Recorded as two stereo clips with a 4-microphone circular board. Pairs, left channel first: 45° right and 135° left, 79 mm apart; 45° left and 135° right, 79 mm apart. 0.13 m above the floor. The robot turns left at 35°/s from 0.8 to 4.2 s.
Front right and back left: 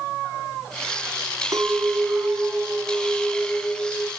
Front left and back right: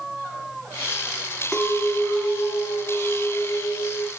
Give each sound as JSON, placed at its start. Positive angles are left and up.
{"t": 1.5, "sound": "a clink", "azimuth_deg": 125, "distance_m": 1.3}